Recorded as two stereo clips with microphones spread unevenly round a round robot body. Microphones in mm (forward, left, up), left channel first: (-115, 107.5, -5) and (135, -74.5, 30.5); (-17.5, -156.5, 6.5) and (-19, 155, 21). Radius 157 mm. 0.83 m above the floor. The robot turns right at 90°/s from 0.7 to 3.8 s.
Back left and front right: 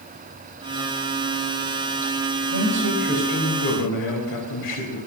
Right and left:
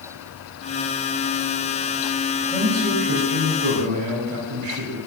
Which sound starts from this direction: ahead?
A man speaking, at 2.5 s.